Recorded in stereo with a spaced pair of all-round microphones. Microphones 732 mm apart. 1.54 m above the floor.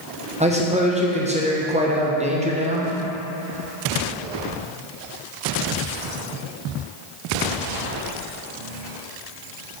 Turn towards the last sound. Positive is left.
turn(degrees=-10)  # may be behind; listen again after turning